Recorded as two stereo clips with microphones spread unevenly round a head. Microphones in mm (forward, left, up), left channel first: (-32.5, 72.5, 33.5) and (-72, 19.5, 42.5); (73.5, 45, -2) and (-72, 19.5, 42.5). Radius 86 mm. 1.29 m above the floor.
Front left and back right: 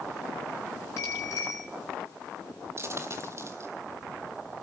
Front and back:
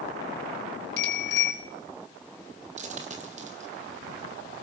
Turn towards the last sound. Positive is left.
turn(degrees=-155)